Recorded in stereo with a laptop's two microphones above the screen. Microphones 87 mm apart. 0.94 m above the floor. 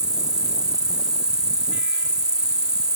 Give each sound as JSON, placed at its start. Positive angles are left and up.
{"t": 0.0, "sound": "an insect", "side_deg": -50}